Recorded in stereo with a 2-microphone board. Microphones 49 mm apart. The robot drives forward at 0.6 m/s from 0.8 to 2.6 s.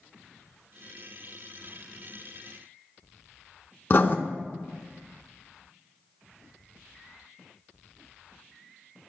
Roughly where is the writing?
Left.